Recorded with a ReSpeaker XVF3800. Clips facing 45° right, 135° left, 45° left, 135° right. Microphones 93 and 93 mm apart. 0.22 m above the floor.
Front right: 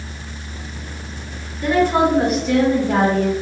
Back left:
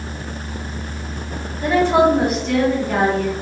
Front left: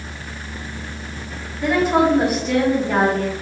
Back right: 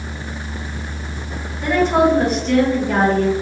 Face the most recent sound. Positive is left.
turn(degrees=-30)